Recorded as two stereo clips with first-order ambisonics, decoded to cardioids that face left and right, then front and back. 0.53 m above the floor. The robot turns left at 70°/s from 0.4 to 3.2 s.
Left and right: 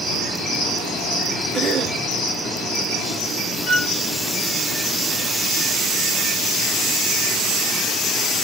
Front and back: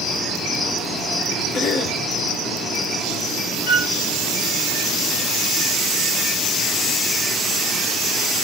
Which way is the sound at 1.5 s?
25° right.